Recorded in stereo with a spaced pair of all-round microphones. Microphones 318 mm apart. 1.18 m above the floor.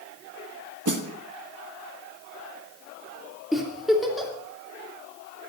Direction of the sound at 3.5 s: Centre (ahead or behind).